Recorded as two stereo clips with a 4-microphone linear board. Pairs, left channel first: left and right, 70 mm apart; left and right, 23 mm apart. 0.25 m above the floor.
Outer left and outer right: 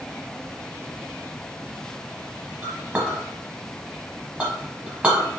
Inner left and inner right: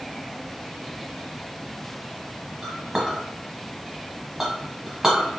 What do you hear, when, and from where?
2.6 s a clink: 20° right (ahead or behind), 0.9 m